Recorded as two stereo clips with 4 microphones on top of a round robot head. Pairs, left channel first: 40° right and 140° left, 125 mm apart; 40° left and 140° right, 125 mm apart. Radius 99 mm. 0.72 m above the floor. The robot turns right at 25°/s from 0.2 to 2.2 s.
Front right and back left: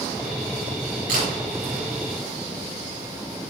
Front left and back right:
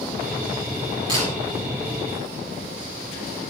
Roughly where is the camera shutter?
Behind.